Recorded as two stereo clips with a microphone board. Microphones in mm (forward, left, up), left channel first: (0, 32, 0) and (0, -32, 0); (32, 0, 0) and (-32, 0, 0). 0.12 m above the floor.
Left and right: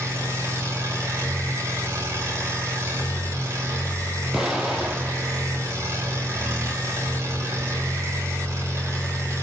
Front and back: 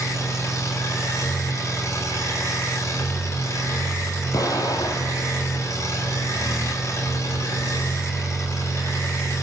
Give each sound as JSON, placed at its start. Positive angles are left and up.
{"t": 0.0, "sound": "an engine running", "azimuth_deg": -40, "distance_m": 9.5}
{"t": 4.3, "sound": "an explosion", "azimuth_deg": -10, "distance_m": 2.0}